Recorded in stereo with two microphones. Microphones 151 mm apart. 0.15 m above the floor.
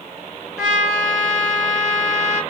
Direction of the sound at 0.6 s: 5° right (ahead or behind).